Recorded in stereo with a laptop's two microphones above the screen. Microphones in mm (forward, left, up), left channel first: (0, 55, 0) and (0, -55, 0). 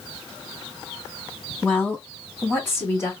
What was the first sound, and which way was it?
A woman speaking, 10° left (ahead or behind).